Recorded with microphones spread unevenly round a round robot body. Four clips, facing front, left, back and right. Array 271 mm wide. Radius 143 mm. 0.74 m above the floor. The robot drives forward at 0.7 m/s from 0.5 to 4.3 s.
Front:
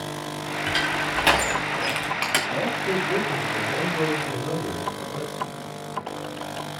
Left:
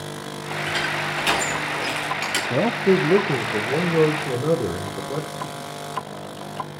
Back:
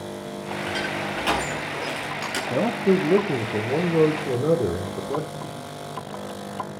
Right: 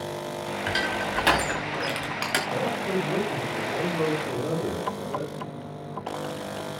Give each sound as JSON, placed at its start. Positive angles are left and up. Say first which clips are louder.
{"t": 0.7, "sound": "crushing", "louder": "left 1 dB, front 3 dB", "azimuth_deg": -35, "distance_m": 5.5}
{"t": 2.5, "sound": "a man speaking", "louder": "left 11 dB, back 9 dB", "azimuth_deg": 115, "distance_m": 1.4}